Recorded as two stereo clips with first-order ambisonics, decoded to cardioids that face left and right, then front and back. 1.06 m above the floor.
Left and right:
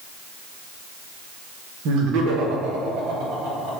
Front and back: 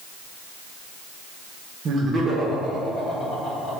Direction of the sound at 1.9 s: 125° right.